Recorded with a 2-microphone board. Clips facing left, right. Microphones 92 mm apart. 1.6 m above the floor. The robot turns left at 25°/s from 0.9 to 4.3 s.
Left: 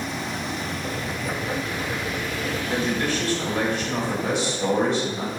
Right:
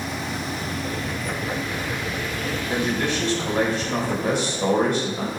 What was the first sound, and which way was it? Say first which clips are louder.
A man speaking: right 1 dB; 10° right.